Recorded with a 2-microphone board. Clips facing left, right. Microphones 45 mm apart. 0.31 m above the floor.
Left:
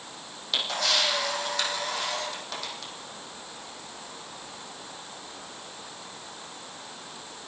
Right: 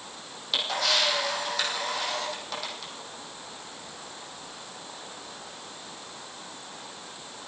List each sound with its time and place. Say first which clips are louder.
0.5 s a camera shutter: right 1 dB; centre (ahead or behind), 5 m